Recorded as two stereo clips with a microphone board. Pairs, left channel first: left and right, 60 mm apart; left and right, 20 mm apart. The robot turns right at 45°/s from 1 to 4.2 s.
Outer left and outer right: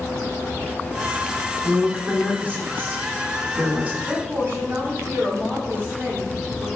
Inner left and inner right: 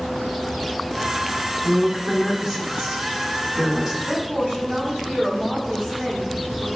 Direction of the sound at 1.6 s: 155° right.